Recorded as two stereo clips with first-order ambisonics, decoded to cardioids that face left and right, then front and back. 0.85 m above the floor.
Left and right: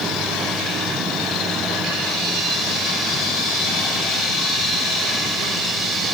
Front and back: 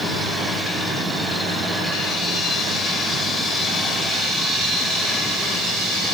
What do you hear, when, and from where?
Only background noise.